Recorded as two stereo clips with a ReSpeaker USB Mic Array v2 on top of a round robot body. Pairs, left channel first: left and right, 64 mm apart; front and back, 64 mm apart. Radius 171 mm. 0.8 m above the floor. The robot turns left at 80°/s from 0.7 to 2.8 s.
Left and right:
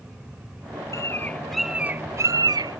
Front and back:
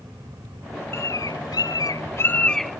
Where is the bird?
50° left; by 2.8 s 100° right.